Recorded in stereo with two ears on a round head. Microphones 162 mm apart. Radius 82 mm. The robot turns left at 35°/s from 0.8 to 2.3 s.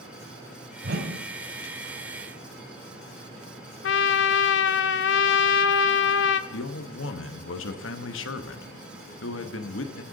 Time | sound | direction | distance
0.8 | a whoosh | 60° right (ahead or behind) | 1.2 m
3.8 | a trumpet | 70° left (ahead or behind) | 0.5 m
6.5 | a man speaking | 75° left (ahead or behind) | 1.0 m